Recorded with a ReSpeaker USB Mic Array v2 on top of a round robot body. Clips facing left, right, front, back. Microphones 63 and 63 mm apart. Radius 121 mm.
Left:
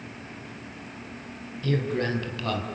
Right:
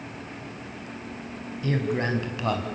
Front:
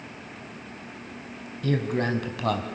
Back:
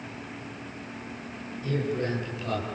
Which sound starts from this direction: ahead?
A man speaking, at 1.6 s.